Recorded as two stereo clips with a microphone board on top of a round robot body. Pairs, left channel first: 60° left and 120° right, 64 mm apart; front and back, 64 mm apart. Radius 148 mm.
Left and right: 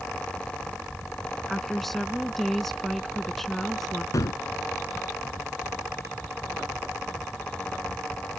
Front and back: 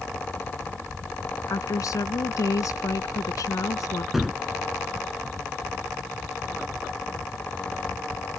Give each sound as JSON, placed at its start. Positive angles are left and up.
{"t": 1.5, "sound": "a woman speaking", "azimuth_deg": -25}
{"t": 4.1, "sound": "a gunshot", "azimuth_deg": 95}